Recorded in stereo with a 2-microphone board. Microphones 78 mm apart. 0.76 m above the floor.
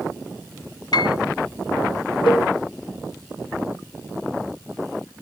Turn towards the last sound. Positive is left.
turn(degrees=80)